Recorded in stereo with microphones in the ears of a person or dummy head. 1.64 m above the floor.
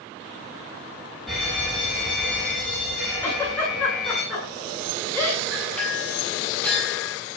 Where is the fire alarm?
Centre (ahead or behind), 7 m.